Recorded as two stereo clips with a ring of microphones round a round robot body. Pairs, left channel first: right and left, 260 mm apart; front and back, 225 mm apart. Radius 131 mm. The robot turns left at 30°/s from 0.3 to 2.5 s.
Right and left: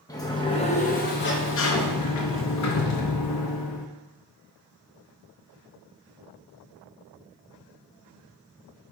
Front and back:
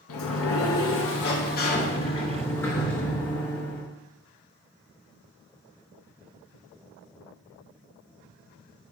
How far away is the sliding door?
About 0.8 m.